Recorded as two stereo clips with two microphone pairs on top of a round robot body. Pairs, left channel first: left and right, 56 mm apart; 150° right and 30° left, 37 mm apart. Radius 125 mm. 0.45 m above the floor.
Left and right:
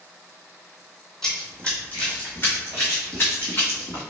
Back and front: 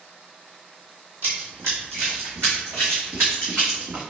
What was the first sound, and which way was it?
Running footsteps, 20° left.